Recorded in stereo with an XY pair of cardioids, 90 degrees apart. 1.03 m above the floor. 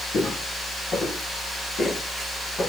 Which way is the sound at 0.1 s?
65° left.